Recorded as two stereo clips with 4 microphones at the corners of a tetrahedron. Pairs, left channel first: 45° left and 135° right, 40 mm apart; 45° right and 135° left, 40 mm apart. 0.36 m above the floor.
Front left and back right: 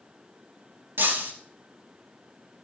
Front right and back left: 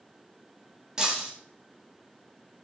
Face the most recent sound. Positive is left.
turn(degrees=-150)